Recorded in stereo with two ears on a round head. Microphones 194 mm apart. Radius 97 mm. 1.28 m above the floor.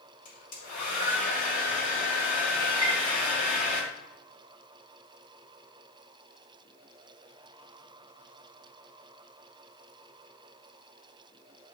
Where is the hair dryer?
40° left (ahead or behind), 3 m.